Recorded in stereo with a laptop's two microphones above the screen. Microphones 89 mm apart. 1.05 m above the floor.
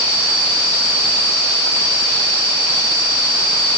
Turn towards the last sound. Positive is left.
No sound to turn to.